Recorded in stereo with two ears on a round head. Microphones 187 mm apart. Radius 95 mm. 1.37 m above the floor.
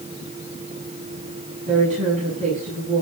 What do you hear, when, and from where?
1.7 s a woman speaking: 40° right (ahead or behind), 9.5 m